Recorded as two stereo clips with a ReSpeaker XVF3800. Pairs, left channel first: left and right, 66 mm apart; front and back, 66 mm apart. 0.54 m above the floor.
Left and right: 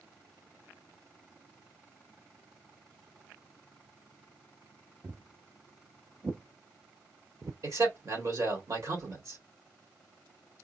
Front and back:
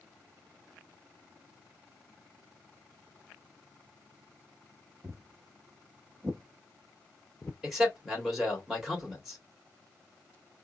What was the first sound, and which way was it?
Footsteps, 145° right.